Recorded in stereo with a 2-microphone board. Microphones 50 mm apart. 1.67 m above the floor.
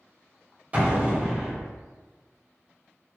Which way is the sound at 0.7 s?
30° right (ahead or behind).